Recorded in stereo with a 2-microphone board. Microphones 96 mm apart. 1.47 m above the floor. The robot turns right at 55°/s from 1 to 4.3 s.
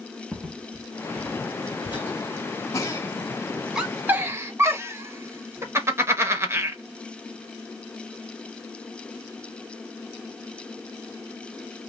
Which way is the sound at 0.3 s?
15° right (ahead or behind).